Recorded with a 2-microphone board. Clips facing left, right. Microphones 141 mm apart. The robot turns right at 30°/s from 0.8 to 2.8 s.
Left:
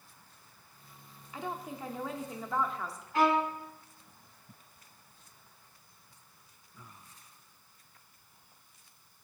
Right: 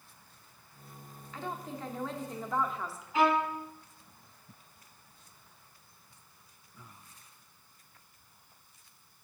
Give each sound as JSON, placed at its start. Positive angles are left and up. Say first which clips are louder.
{"t": 1.3, "sound": "a woman speaking", "louder": "even", "side_deg": 15, "distance_m": 0.7}
{"t": 3.1, "sound": "a violin", "louder": "even", "side_deg": -5, "distance_m": 1.4}